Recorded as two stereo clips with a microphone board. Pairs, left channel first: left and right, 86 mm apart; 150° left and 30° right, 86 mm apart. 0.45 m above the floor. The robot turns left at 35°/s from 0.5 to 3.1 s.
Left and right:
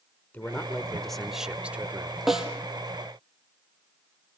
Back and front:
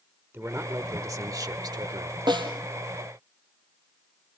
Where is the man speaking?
25° left, 1.1 m; by 2.2 s 35° right, 1.1 m.